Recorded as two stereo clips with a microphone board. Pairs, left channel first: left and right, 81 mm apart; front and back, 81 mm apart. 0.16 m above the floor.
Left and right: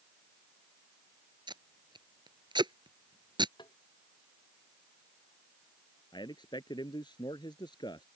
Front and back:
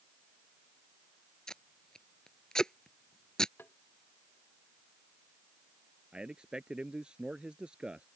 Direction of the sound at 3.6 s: 65° left.